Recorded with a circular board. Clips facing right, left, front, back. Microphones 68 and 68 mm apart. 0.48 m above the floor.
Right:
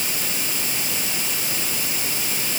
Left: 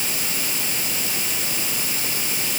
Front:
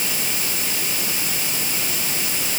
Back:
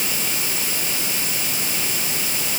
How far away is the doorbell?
No doorbell in this recording.